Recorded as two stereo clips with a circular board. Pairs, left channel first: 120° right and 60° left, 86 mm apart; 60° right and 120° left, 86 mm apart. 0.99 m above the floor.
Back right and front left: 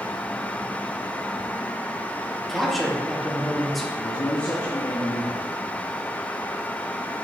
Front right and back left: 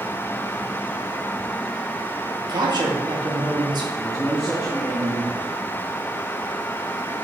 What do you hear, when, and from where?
2.5 s a man speaking: 150° left, 1.6 m
4.0 s a man speaking: 155° right, 1.6 m